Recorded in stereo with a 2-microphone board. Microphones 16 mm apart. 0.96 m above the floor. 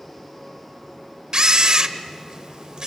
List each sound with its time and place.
1.3 s a camera shutter: 45° right (ahead or behind), 0.9 m